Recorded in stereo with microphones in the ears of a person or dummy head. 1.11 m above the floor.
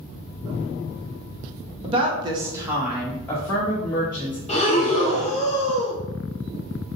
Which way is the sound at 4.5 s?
30° left (ahead or behind).